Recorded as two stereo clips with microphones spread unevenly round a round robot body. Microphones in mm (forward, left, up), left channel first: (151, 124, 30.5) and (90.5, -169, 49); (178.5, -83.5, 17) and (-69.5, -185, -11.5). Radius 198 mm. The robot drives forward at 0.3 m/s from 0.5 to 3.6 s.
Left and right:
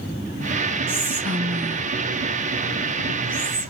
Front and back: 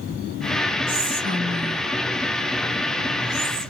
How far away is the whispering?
About 1.8 m.